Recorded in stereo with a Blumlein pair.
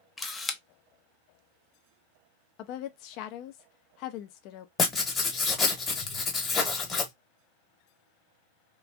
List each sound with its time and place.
0.2 s a camera shutter: 10° left, 0.5 m
2.6 s a woman speaking: 40° left, 0.5 m
4.8 s writing: 20° left, 1.1 m